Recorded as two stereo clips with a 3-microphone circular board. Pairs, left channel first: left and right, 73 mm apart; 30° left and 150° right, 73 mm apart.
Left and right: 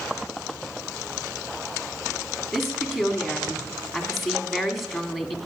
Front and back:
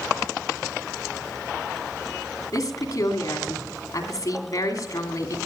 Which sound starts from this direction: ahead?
A woman speaking, at 2.5 s.